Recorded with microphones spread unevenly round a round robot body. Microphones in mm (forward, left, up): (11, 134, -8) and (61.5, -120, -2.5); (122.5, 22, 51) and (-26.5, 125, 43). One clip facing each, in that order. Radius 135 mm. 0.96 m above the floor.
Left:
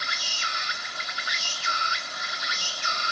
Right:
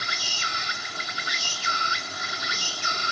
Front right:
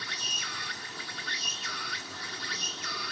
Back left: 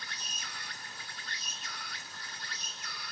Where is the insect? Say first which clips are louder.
Right 3 dB, front right 5 dB; 80° right.